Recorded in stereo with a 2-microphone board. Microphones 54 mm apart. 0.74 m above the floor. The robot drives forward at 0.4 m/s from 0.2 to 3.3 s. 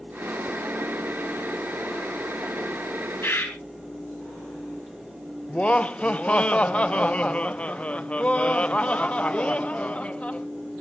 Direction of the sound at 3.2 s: 45° left (ahead or behind).